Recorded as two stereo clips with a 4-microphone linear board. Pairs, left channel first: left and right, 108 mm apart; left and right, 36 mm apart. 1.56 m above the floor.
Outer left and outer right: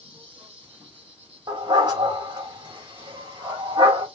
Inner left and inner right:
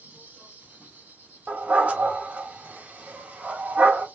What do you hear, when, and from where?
0.0 s an insect: 60° right (ahead or behind), 4 m
1.5 s a dog barking: 40° right (ahead or behind), 3 m